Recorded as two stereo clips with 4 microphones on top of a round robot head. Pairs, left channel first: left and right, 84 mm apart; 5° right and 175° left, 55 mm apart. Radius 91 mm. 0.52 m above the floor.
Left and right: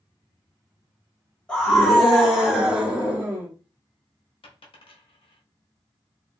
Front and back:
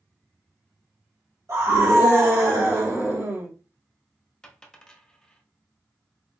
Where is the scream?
165° left, 2 m; by 3.5 s 155° right, 2.5 m.